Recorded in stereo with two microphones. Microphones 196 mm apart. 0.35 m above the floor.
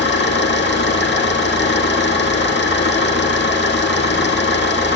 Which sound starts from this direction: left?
An engine running, at 0.0 s.